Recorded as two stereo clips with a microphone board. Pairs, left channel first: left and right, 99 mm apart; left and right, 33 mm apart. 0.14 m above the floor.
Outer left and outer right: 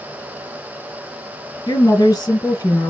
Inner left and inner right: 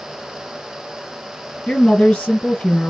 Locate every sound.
1.7 s a woman speaking: 30° left (ahead or behind), 1.5 m